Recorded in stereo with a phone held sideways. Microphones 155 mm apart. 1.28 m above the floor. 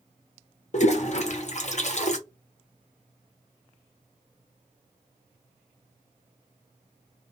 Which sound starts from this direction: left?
A toilet flushing, at 0.7 s.